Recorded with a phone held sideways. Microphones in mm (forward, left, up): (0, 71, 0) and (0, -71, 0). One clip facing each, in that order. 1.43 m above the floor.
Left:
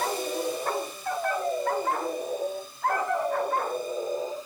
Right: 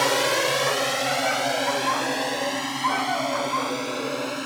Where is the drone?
80° right; by 4.5 s 75° right (ahead or behind).